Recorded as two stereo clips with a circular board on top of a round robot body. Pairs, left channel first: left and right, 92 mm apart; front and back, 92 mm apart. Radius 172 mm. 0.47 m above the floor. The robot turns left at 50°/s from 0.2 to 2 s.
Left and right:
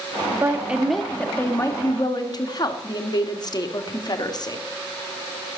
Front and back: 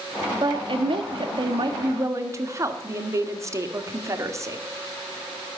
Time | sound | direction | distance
0.3 | a woman speaking | 150° right | 1.5 m